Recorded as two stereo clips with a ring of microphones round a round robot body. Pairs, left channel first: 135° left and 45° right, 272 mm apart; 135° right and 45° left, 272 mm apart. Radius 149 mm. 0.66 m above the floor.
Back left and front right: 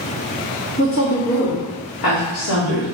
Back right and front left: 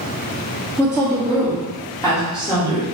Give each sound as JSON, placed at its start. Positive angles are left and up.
{"t": 0.8, "sound": "a woman speaking", "azimuth_deg": 145, "distance_m": 1.5}